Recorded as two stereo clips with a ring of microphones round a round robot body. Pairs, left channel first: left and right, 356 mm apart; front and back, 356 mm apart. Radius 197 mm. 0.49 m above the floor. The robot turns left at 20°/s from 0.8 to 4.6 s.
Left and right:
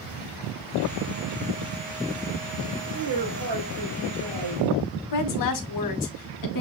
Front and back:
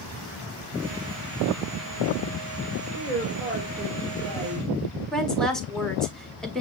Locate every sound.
2.9 s a woman speaking: 100° right, 2.5 m; by 4.7 s 130° right, 2.5 m
5.1 s a woman speaking: 90° left, 1.3 m